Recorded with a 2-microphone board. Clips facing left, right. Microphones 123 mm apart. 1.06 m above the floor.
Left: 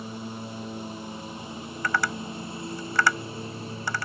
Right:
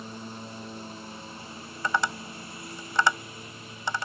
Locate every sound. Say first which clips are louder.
0.0 s a lawn mower: left 4 dB; 10° left (ahead or behind); by 4.0 s 35° left (ahead or behind)
1.8 s tapping: even; 25° right (ahead or behind)